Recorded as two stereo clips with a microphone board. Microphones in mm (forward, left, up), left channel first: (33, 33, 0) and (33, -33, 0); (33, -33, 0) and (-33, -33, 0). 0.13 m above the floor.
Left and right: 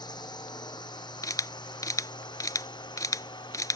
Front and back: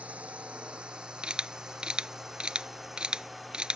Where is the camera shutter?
105° left.